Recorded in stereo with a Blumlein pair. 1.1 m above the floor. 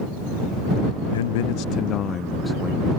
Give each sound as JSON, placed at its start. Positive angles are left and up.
{"t": 1.1, "sound": "a man speaking", "azimuth_deg": 60}